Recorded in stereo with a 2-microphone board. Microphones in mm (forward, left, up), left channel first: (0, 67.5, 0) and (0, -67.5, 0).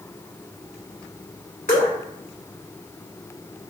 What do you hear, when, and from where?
1.7 s dripping: 80° left, 1.5 m